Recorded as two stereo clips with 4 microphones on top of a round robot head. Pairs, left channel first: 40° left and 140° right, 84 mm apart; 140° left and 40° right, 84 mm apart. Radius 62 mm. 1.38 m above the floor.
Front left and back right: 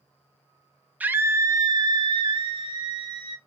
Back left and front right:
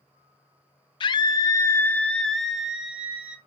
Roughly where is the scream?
Behind left.